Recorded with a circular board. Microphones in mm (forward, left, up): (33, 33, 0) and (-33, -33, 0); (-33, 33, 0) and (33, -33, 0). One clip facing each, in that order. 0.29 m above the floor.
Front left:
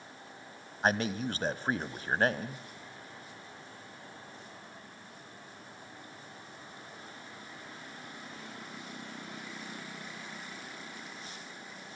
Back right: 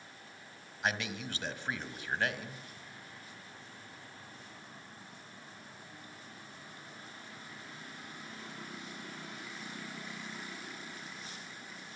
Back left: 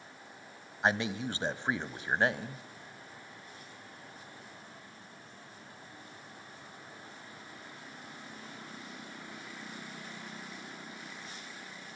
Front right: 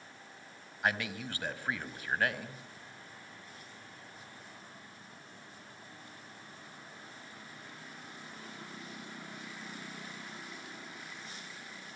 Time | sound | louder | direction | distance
0.8 | a man speaking | front left 6 dB, back left 4 dB | 80° left | 1.4 m